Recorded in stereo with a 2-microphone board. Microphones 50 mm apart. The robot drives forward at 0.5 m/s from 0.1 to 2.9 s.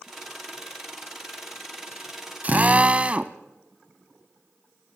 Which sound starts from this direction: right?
A drill, at 2.4 s.